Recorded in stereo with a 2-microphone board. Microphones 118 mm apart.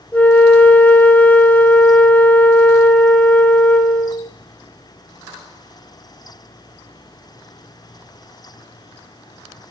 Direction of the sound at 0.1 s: 15° left (ahead or behind).